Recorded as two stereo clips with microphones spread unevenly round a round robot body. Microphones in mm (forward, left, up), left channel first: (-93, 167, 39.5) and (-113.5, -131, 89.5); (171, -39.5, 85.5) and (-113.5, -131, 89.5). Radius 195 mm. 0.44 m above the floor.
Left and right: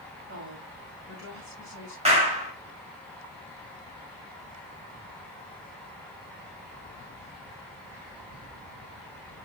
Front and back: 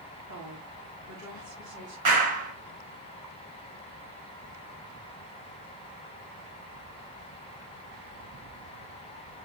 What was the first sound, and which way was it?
A woman speaking, 145° right.